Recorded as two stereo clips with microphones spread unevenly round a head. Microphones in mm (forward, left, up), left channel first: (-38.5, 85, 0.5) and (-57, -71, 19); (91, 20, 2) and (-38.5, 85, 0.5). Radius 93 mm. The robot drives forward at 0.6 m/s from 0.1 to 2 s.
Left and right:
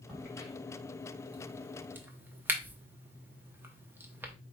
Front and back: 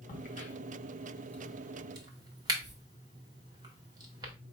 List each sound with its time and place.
0.1 s a crack: 10° right, 0.9 m; by 4.3 s 155° right, 0.7 m